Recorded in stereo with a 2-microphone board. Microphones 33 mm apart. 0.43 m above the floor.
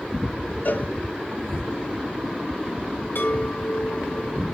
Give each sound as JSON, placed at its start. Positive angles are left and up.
{"t": 0.7, "sound": "a cowbell", "side_deg": 55, "distance_m": 0.8}
{"t": 3.1, "sound": "a chime", "side_deg": 65, "distance_m": 5.5}